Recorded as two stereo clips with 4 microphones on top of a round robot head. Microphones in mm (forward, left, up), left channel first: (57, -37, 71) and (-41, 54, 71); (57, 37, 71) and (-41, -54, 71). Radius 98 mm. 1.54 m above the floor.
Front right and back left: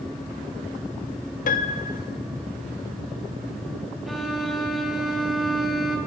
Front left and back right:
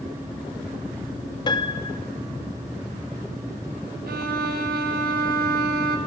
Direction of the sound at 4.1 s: 135° right.